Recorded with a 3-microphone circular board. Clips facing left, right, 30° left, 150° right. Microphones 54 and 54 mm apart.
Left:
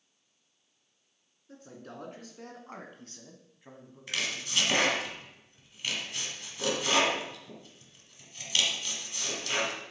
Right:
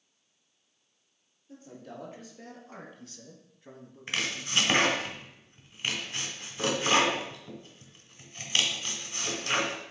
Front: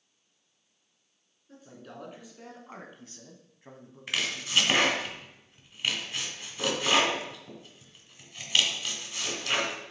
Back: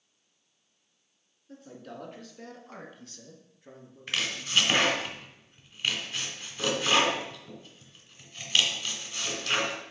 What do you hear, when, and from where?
1.5 s a man speaking: 120° left, 2.5 m; by 4.8 s 10° right, 1.7 m
4.1 s chopping: 50° right, 1.6 m